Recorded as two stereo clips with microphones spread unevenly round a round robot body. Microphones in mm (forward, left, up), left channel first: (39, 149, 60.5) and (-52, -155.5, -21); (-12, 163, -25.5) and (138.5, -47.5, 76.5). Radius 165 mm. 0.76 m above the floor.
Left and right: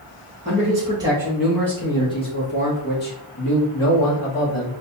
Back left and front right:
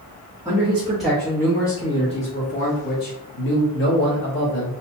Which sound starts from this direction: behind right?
A man speaking, at 0.5 s.